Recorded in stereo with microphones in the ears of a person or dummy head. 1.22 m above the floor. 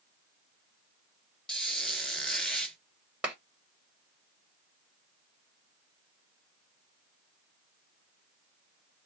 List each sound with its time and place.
1.5 s a squeak: 5° left (ahead or behind), 0.8 m
3.2 s a clap: 5° right (ahead or behind), 1.0 m